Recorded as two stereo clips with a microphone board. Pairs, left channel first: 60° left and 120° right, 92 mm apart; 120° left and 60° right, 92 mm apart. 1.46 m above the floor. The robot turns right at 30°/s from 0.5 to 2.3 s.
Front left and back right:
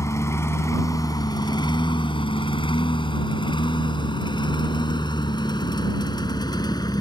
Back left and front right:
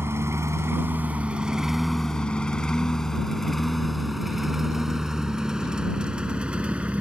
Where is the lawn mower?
5° left; by 7.0 s 20° left.